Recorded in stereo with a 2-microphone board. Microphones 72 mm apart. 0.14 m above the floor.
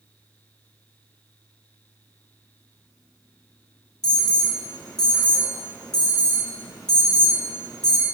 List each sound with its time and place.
4.0 s an alarm: 65° left (ahead or behind), 4 m